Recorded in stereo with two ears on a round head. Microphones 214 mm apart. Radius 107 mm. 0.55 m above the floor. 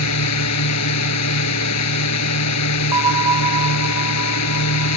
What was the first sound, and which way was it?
A drone, 80° left.